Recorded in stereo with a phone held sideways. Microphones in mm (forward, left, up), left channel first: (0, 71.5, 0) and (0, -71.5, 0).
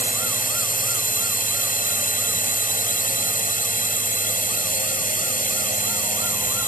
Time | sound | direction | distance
0.0 | a drone | 75° left (ahead or behind) | ?